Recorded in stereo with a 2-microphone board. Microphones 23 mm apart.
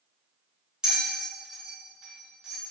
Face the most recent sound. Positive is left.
turn(degrees=-35)  # may be behind; listen again after turning